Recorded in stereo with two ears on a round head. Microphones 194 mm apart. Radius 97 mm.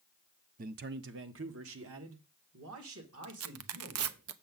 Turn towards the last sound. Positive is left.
turn(degrees=-75)  # may be behind; listen again after turning